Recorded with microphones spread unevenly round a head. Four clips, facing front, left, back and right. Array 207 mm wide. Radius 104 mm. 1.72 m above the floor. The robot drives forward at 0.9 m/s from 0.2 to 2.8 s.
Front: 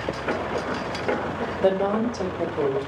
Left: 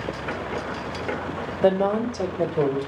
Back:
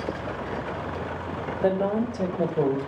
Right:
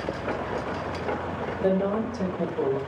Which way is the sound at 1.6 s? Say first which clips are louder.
Left 5 dB, front 2 dB; 100° left.